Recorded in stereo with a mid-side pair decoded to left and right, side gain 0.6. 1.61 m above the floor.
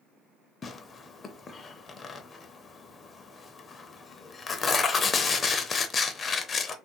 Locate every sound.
0.6 s tearing paper: 30° left, 0.6 m